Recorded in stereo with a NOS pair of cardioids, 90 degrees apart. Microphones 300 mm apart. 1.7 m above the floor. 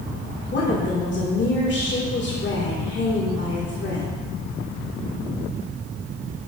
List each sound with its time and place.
0.5 s a woman speaking: 40° left, 1.9 m